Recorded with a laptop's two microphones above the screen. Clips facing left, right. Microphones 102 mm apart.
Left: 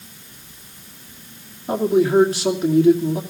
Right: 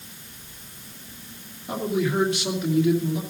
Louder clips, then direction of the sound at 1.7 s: Left 8 dB; 35° left (ahead or behind).